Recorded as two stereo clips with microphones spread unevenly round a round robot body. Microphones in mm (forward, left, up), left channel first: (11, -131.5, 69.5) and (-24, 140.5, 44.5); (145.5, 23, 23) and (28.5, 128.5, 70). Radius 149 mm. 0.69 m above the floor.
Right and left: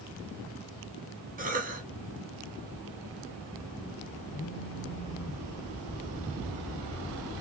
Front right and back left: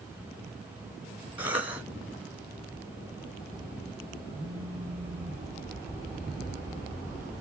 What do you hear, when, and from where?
1.4 s a cough: 70° left, 1.0 m
4.3 s a phone buzzing: 130° right, 0.8 m